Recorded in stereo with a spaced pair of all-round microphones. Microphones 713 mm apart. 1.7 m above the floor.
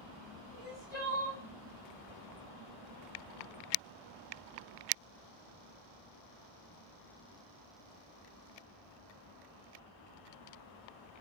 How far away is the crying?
About 2 m.